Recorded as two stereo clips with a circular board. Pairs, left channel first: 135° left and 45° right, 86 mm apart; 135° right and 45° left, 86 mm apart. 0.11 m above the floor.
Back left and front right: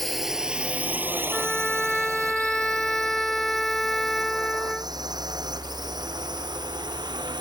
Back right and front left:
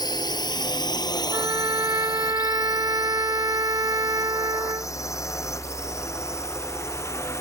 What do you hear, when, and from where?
0.0 s a drone: 135° right; by 7.4 s 75° right
1.3 s a trumpet: 50° left